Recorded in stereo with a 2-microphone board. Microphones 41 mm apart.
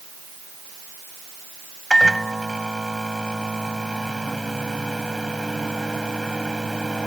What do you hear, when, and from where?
1.9 s a microwave: 10° left (ahead or behind)